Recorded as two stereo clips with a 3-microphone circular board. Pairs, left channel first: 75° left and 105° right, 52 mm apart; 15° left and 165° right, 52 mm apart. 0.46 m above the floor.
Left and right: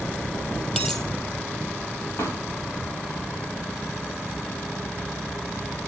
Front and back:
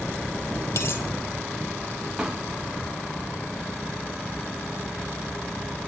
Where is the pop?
110° left, 8.5 m.